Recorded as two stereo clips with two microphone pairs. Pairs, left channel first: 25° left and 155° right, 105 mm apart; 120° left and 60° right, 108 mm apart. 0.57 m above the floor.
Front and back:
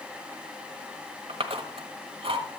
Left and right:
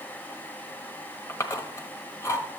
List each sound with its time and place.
1.3 s chewing: 175° right, 1.3 m